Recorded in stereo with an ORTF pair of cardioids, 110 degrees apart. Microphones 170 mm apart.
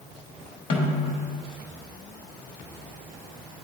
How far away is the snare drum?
About 1.5 m.